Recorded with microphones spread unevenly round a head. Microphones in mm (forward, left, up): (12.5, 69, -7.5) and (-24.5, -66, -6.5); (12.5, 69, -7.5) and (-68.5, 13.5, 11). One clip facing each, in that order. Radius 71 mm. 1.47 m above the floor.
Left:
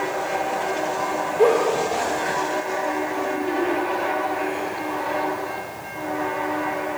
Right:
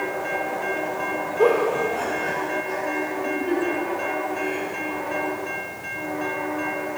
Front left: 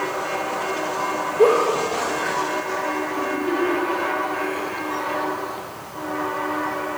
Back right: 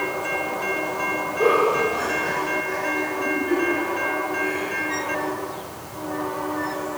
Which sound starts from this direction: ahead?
A giggle, at 1.4 s.